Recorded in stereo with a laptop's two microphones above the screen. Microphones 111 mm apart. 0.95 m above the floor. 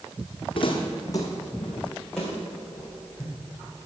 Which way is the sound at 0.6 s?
55° left (ahead or behind).